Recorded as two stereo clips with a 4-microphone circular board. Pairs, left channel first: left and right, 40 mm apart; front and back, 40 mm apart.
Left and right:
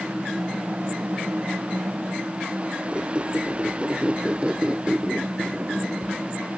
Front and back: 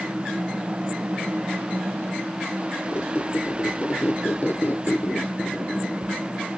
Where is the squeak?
25° right, 0.7 m.